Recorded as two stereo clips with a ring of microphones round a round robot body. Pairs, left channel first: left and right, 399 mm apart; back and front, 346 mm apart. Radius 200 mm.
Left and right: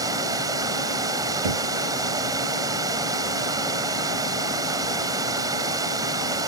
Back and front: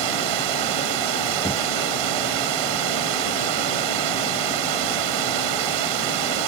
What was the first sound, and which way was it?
Running water, 10° right.